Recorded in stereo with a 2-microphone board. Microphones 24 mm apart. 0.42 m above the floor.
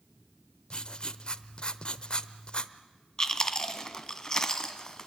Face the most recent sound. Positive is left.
turn(degrees=30)  # may be behind; listen again after turning